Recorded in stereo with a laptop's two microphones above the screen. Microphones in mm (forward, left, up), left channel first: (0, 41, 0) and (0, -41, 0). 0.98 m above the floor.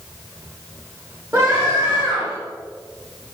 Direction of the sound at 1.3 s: 20° right (ahead or behind).